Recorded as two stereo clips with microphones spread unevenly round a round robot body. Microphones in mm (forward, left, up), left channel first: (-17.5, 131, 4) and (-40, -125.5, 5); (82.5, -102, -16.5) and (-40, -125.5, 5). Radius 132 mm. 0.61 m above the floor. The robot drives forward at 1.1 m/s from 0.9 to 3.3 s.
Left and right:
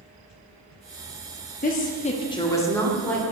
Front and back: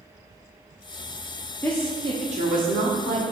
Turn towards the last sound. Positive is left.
turn(degrees=170)